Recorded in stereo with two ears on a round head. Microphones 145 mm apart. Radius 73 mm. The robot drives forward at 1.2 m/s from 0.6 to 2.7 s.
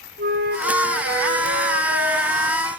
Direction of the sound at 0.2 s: 60° right (ahead or behind).